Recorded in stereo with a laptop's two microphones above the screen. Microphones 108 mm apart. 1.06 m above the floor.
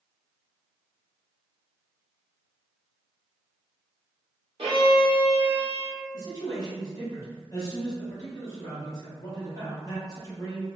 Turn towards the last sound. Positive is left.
turn(degrees=35)  # may be behind; listen again after turning